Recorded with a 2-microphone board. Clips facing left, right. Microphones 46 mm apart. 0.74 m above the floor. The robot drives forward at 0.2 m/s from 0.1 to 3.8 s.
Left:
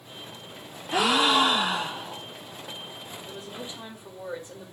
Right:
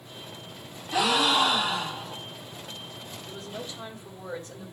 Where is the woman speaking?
15° left (ahead or behind), 3.5 m.